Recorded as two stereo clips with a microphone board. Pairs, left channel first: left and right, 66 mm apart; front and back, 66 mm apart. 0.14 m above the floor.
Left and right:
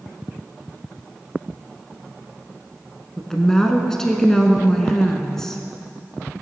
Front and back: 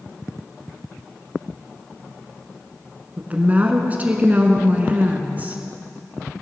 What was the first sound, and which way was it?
A woman speaking, 160° left.